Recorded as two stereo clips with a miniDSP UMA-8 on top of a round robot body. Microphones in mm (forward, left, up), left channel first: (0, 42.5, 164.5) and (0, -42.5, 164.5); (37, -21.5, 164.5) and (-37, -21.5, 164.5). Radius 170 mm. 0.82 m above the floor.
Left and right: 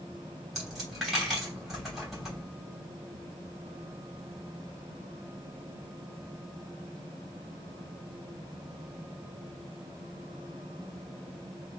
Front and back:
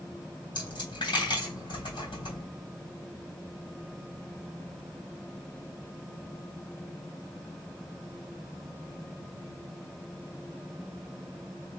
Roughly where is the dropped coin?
Ahead.